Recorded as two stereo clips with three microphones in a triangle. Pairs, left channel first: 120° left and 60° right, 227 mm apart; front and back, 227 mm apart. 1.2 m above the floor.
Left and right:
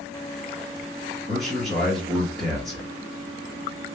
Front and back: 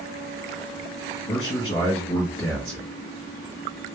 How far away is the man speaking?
About 1.2 m.